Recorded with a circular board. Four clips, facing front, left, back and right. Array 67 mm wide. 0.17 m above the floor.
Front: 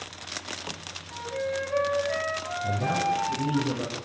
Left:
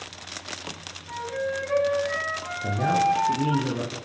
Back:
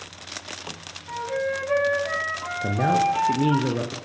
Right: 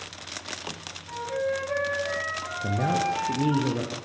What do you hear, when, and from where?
1.1 s a flute: straight behind, 8 m
2.6 s a man speaking: 170° right, 3 m